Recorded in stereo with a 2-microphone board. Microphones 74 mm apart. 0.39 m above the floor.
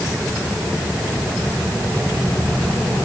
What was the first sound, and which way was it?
Only background noise.